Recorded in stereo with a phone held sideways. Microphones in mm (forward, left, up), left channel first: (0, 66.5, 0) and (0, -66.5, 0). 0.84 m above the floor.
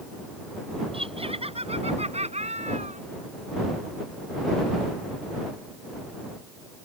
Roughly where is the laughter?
Right.